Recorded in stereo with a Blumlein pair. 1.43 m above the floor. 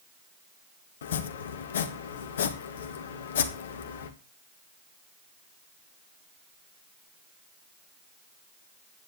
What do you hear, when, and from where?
1.0 s chopping: 60° left, 1.7 m